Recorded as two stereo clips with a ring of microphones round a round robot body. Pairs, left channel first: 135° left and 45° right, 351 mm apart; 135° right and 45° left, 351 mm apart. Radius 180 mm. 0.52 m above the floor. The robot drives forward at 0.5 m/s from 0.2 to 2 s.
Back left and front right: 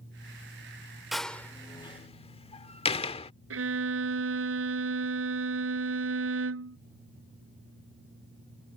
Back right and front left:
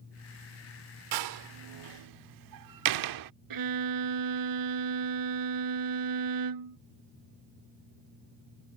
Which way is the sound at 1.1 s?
45° left.